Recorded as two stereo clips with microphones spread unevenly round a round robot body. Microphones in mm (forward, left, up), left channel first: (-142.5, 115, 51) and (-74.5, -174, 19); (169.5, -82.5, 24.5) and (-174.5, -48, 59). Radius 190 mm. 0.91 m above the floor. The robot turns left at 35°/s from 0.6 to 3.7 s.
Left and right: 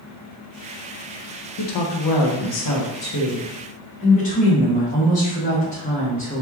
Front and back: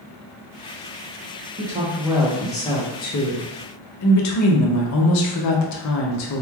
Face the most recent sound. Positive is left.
turn(degrees=30)